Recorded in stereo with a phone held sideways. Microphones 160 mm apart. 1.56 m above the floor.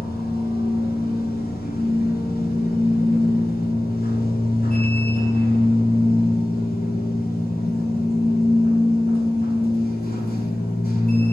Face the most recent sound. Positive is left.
turn(degrees=70)  # may be behind; listen again after turning